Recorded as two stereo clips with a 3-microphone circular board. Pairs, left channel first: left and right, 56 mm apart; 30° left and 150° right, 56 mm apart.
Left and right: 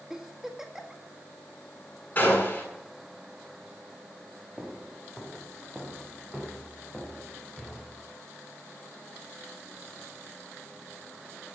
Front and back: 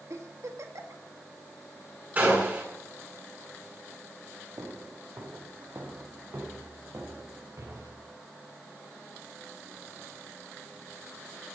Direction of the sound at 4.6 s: 175° right.